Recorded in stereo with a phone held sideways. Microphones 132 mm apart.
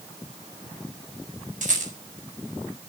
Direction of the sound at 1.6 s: 75° right (ahead or behind).